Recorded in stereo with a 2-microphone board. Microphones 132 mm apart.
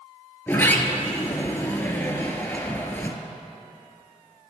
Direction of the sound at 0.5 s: 15° left (ahead or behind).